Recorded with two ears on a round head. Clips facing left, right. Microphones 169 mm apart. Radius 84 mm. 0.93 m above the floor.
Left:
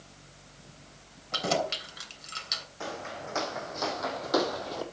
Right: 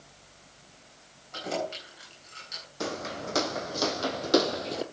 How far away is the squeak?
I don't hear a squeak.